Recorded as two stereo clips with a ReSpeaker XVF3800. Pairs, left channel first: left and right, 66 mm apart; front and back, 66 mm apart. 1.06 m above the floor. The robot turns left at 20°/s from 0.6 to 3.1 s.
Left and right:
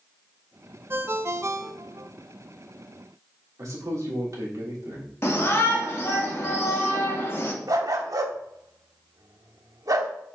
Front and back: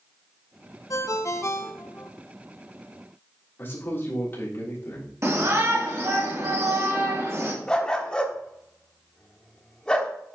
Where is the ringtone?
35° right, 0.5 m; by 2.1 s 60° right, 0.5 m.